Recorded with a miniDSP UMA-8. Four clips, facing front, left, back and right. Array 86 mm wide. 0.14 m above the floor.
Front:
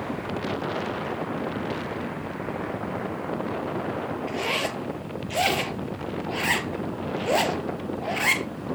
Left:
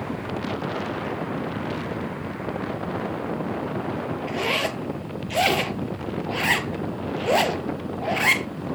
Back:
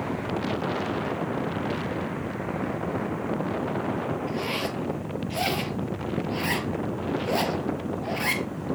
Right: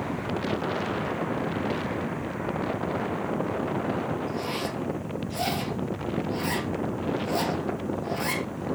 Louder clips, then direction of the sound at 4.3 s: Left 4 dB, front 1 dB; 70° left.